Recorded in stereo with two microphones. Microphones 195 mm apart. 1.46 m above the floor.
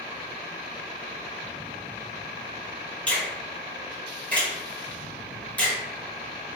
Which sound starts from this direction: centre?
A finger snap, at 3.1 s.